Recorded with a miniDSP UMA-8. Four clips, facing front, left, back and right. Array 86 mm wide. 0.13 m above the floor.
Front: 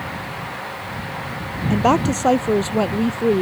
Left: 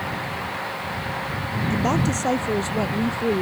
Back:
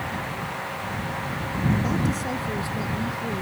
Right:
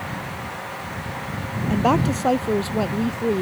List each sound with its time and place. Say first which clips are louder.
1.7 s a woman speaking: right 4 dB, front 10 dB; 20° right; by 3.4 s straight ahead